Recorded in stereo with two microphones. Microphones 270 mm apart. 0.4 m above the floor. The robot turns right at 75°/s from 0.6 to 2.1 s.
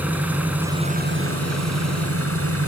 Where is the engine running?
175° right, 4 m; by 2.7 s 60° right, 4 m.